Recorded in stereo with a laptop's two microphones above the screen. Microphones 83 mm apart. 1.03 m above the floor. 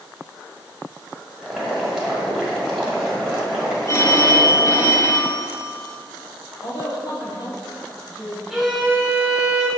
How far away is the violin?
About 1.4 m.